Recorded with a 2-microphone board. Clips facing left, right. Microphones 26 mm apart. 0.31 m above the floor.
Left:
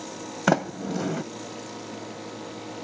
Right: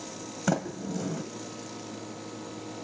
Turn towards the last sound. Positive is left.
turn(degrees=35)  # may be behind; listen again after turning